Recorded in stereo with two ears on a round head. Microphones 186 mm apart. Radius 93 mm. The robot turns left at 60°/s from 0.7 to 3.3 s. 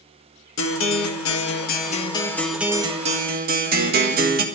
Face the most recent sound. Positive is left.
turn(degrees=-50)